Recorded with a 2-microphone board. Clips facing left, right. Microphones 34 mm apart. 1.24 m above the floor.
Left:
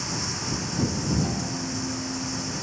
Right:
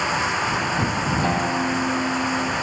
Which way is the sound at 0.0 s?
50° right (ahead or behind).